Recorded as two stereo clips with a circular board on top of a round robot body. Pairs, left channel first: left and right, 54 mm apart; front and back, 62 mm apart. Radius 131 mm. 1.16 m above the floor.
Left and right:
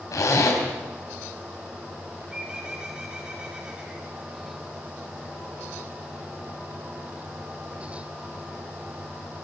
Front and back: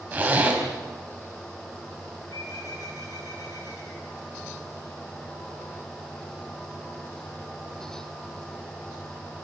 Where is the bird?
15° right, 4.5 m.